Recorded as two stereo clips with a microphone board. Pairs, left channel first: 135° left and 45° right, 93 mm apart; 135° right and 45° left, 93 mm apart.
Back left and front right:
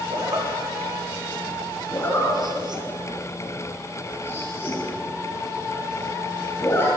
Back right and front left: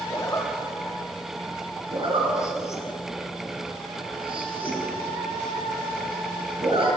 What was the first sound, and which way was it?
A zipper, 80° right.